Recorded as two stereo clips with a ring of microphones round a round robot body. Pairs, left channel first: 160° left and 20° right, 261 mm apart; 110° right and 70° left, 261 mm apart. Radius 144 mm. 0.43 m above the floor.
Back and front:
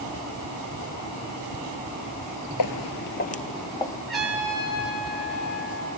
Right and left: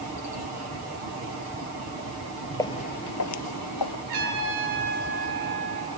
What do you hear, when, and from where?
2.6 s footsteps: 170° left, 0.7 m; by 4.0 s 120° right, 1.3 m
4.1 s a trumpet: 70° left, 8 m